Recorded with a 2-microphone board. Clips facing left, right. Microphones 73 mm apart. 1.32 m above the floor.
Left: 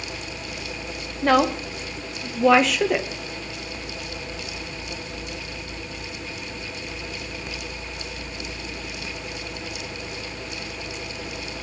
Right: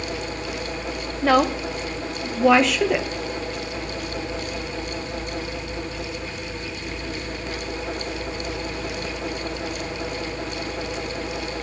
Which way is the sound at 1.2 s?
5° right (ahead or behind).